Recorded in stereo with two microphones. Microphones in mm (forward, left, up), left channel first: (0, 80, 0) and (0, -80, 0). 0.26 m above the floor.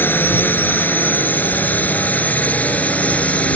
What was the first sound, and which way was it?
A drone, 15° left (ahead or behind).